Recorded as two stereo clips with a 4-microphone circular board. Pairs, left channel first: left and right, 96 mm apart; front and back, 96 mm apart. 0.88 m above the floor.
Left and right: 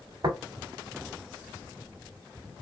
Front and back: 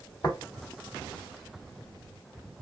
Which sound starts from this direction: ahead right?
Tapping, at 0.2 s.